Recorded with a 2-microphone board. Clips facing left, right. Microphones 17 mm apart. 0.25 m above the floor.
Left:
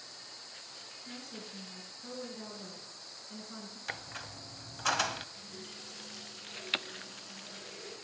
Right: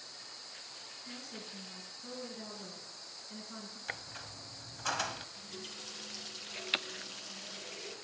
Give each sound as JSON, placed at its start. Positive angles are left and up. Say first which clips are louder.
{"t": 1.1, "sound": "a woman speaking", "louder": "left 1 dB", "side_deg": -5, "distance_m": 3.5}
{"t": 3.9, "sound": "a squeak", "louder": "left 2 dB", "side_deg": 20, "distance_m": 0.6}
{"t": 5.3, "sound": "a running tap", "louder": "right 1 dB", "side_deg": -30, "distance_m": 4.0}